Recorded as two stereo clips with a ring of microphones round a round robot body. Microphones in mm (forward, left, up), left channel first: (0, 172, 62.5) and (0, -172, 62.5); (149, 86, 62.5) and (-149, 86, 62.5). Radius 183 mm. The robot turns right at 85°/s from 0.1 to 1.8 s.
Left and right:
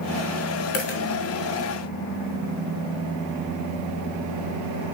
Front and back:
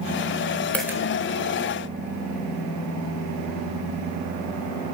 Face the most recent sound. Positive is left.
turn(degrees=175)